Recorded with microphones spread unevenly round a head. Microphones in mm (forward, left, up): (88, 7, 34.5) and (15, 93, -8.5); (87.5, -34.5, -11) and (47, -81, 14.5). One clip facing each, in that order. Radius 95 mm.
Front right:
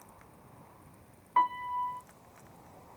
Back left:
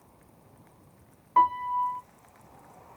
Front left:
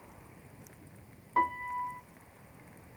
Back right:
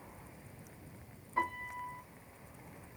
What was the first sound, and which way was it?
A piano, 65° left.